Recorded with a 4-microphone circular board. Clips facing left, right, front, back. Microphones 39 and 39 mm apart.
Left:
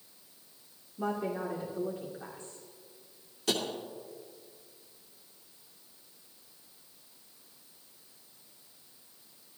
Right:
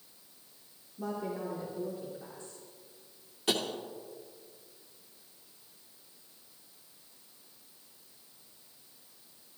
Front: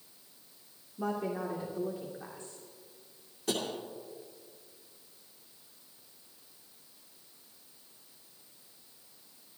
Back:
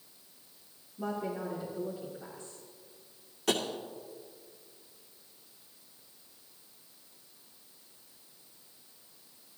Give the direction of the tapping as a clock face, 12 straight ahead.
5 o'clock.